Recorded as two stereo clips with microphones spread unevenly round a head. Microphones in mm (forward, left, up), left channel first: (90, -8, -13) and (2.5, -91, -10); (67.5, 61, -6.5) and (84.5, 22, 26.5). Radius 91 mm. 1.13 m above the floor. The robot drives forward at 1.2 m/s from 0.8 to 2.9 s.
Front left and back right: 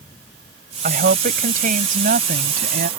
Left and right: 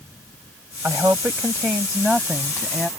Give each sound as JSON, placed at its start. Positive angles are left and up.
{"t": 0.8, "sound": "a woman speaking", "azimuth_deg": -140}